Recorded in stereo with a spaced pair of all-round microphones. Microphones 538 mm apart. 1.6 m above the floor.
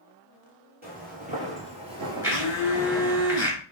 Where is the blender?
5° right (ahead or behind), 2 m.